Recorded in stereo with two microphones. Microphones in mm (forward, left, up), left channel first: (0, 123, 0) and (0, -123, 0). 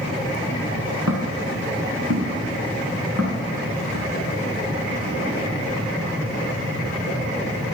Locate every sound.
1.1 s footsteps: 70° right (ahead or behind), 6.5 m; by 4.0 s 60° right (ahead or behind), 9 m